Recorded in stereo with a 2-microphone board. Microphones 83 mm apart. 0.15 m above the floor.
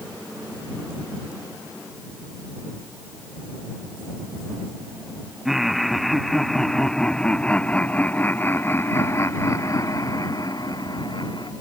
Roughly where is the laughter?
Centre.